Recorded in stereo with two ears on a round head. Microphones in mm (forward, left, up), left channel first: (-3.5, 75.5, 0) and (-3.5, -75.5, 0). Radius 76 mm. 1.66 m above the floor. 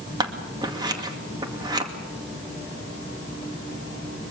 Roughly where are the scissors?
Right.